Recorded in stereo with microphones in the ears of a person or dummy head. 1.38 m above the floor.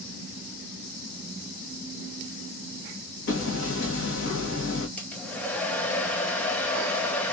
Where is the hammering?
65° left (ahead or behind), 1.6 m.